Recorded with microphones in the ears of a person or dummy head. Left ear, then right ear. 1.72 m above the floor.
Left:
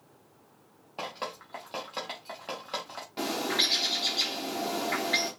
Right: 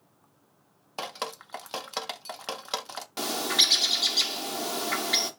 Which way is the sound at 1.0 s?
50° right (ahead or behind).